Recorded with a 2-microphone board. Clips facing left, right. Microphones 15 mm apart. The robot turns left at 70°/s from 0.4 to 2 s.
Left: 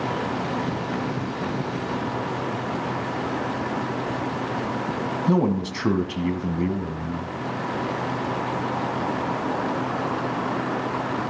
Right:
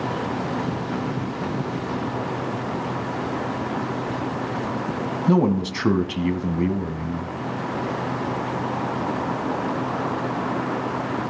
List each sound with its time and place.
5.3 s a man speaking: 15° right (ahead or behind), 1.3 m